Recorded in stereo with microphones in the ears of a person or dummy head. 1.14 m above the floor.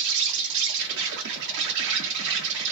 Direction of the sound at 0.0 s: 60° right (ahead or behind).